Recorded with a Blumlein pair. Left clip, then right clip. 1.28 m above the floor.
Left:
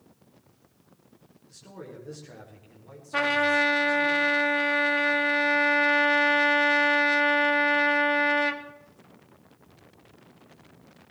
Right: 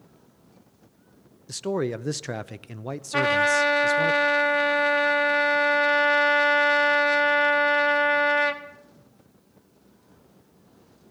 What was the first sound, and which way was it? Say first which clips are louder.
A man speaking: right 17 dB; 50° right.